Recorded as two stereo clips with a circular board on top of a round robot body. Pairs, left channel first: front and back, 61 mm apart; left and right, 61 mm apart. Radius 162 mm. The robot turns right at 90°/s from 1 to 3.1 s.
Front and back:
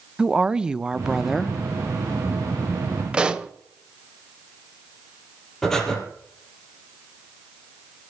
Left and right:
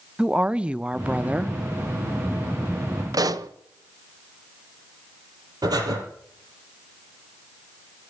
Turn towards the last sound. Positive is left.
turn(degrees=-85)